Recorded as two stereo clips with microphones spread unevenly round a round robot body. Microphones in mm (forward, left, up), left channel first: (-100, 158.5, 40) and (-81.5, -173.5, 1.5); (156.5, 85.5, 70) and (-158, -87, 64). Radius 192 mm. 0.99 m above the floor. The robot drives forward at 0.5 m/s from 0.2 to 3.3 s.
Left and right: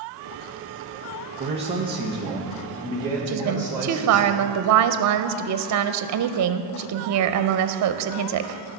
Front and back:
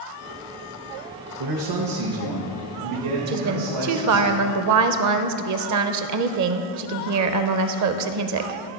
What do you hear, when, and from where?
1.4 s a man speaking: 150° right, 1.0 m; by 4.3 s 165° right, 1.8 m
3.3 s a woman speaking: 115° right, 0.5 m